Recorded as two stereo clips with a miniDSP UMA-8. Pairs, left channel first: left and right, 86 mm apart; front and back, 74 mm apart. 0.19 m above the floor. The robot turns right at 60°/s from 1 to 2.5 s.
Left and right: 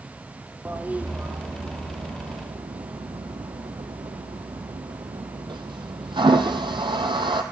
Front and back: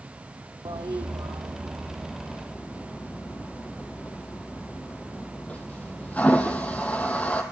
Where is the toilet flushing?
160° right, 1.2 m; by 7.4 s 70° right, 1.2 m.